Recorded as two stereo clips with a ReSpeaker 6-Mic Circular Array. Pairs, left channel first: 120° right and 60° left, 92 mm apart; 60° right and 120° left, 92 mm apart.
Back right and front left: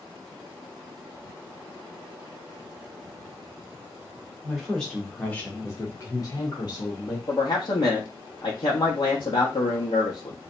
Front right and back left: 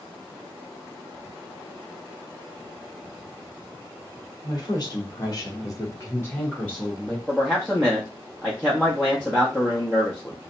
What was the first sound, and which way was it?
A woman speaking, 30° right.